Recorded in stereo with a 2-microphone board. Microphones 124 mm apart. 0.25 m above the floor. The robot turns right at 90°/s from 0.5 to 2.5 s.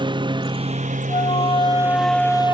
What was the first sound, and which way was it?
A lawn mower, 140° right.